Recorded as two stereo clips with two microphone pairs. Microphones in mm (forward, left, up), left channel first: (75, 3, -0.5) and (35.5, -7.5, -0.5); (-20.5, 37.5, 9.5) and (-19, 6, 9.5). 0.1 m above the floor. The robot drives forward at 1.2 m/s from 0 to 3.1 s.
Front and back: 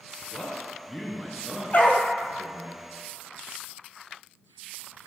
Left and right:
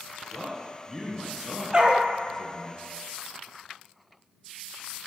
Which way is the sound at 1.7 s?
25° right.